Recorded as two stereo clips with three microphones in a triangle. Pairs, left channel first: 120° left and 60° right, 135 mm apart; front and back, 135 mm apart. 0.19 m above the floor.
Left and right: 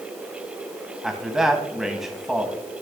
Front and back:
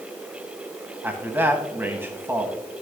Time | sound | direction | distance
1.0 | a man speaking | 140° right | 1.3 m